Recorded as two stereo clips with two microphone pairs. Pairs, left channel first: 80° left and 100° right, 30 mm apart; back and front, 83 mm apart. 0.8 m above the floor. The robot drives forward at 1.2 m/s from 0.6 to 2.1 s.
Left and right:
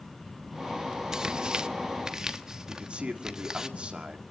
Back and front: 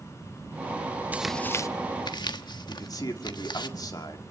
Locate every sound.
1.1 s tearing paper: 55° right, 0.6 m; by 3.7 s 165° right, 1.1 m
2.7 s a man speaking: 150° right, 2.0 m